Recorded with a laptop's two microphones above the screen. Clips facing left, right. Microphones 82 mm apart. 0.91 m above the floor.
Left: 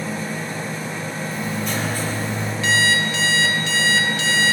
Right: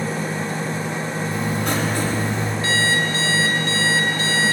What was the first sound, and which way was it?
A machine running, 30° right (ahead or behind).